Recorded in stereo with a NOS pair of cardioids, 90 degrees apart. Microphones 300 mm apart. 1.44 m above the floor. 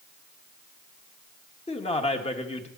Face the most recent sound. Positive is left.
turn(degrees=20)